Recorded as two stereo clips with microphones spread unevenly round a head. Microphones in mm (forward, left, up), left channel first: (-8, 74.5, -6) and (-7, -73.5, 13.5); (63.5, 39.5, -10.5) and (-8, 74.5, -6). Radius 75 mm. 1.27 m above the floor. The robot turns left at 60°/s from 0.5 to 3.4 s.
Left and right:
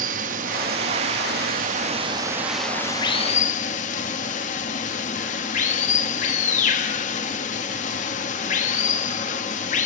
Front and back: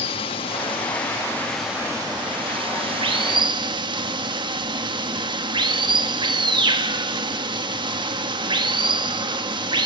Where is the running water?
50° right, 1.3 m; by 9.9 s 135° left, 1.3 m.